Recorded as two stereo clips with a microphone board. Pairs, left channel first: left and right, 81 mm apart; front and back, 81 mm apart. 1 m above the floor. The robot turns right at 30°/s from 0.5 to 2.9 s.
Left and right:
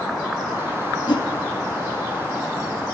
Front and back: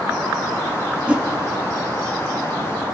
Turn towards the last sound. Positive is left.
turn(degrees=160)